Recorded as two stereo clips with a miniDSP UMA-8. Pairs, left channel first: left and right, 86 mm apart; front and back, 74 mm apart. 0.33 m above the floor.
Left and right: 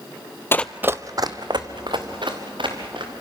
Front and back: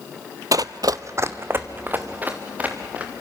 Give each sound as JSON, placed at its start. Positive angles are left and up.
{"t": 0.5, "sound": "running footsteps", "azimuth_deg": 150, "distance_m": 0.6}